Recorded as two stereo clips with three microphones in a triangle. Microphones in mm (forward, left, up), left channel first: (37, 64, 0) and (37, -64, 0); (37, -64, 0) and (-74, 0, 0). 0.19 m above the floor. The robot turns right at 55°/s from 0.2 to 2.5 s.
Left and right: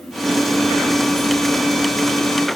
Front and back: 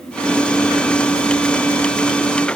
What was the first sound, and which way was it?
Only background noise.